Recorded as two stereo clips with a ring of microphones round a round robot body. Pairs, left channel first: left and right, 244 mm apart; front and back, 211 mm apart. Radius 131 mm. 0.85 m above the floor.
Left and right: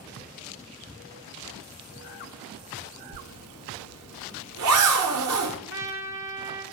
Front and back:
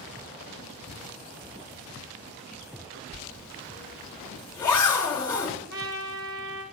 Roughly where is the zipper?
Right.